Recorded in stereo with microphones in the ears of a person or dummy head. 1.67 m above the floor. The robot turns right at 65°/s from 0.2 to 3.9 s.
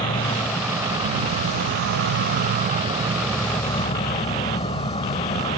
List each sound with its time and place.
0.0 s an insect: 155° left; by 5.6 s 35° left